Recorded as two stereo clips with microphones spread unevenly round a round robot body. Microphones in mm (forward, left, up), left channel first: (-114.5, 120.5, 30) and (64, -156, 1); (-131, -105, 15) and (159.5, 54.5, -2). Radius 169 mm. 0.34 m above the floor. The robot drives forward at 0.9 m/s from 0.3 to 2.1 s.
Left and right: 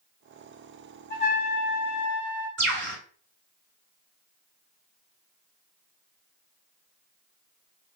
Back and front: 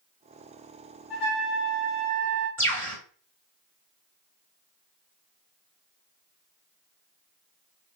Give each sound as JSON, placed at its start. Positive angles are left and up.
{"t": 1.1, "sound": "a trumpet", "azimuth_deg": 180, "distance_m": 2.0}
{"t": 2.6, "sound": "a bird", "azimuth_deg": -70, "distance_m": 1.7}